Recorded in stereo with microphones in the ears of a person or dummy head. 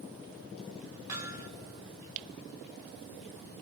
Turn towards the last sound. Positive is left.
turn(degrees=-15)  # may be behind; listen again after turning